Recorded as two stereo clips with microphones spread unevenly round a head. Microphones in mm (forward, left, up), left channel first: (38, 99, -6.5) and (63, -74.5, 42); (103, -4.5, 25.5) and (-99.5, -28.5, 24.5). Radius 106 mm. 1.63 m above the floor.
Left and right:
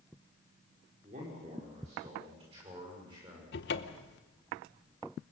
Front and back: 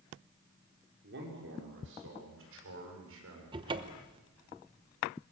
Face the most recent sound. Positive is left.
turn(degrees=130)